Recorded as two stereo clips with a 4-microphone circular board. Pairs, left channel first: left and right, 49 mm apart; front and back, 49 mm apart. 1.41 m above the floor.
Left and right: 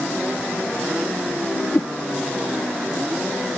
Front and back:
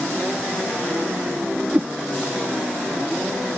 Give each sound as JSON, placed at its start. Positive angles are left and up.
{"t": 1.7, "sound": "a whoosh", "azimuth_deg": 115}